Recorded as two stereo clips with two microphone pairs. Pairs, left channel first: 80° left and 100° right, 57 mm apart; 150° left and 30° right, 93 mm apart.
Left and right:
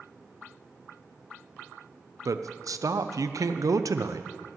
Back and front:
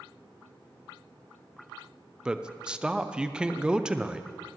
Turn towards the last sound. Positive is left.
turn(degrees=-110)